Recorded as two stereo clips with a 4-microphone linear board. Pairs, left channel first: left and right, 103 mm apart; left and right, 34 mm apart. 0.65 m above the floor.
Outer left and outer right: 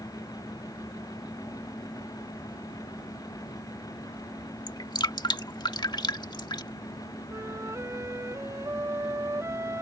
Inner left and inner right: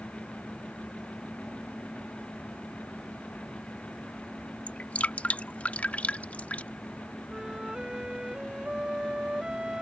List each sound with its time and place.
4.7 s dripping: 45° left (ahead or behind)
7.3 s a flute: 30° right (ahead or behind)